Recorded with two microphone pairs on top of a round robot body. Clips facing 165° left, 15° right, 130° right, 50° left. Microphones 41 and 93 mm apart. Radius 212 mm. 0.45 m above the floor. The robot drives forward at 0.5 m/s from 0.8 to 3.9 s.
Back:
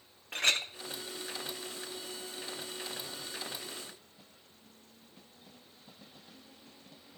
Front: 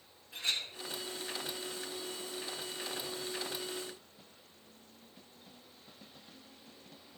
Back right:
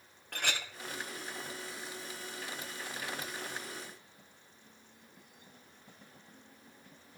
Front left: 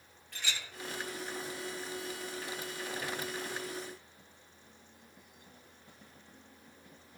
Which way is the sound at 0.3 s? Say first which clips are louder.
Back 6 dB, back right 5 dB; 165° right.